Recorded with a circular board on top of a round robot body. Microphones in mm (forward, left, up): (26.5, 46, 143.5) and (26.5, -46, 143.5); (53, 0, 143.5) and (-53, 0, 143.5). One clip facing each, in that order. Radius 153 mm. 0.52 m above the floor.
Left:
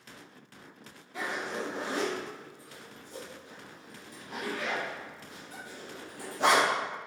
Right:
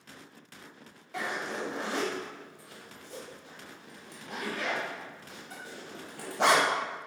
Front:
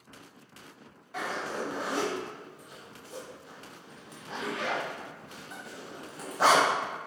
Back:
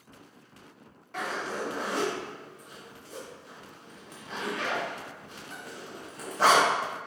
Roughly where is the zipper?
Right.